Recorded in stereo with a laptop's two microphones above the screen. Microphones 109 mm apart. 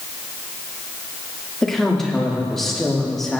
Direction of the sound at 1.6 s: 5° left (ahead or behind).